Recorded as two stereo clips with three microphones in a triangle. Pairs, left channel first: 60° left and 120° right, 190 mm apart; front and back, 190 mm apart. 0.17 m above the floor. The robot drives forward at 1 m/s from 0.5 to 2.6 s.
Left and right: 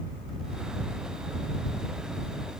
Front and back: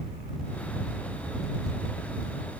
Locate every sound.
Only background noise.